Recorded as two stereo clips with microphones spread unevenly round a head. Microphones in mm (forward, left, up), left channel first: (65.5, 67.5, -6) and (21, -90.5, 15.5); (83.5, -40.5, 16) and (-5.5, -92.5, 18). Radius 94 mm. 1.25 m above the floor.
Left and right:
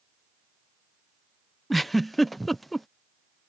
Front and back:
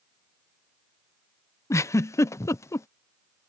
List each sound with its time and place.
1.7 s a giggle: 5° right